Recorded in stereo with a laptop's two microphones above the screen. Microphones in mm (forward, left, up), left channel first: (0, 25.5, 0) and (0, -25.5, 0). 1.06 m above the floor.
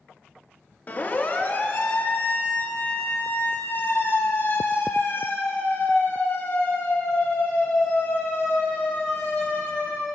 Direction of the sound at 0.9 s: 40° left (ahead or behind).